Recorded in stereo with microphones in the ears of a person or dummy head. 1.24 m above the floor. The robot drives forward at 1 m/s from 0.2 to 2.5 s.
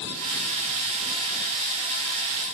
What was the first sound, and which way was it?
Only background noise.